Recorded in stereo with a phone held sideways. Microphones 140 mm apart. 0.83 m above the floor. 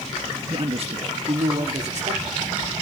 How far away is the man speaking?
About 1.4 m.